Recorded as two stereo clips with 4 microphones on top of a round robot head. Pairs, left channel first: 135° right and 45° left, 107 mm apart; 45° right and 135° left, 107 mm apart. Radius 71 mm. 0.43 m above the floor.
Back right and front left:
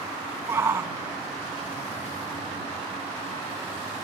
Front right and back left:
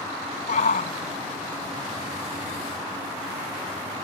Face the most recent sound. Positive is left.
turn(degrees=-35)